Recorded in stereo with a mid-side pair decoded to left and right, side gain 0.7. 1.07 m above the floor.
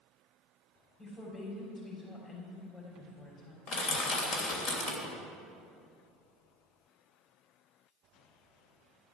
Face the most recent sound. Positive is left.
turn(degrees=55)